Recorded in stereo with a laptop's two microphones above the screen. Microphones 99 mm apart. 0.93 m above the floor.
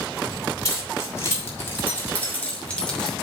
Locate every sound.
0.7 s keys jangling: 35° left (ahead or behind), 3.5 m; by 3.1 s 5° left (ahead or behind), 2.5 m